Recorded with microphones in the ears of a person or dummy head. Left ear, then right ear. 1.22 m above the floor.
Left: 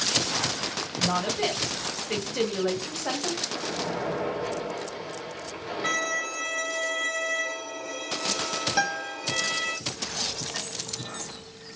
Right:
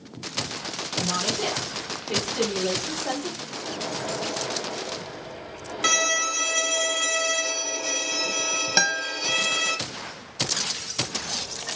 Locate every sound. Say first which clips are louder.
1.0 s a woman speaking: even; 25° left (ahead or behind), 1.3 m
3.5 s a splash: left 1 dB; 75° left (ahead or behind), 1.6 m
5.8 s a violin: right 6 dB; 75° right (ahead or behind), 0.5 m
8.8 s a guitar: right 6 dB; 40° right (ahead or behind), 0.8 m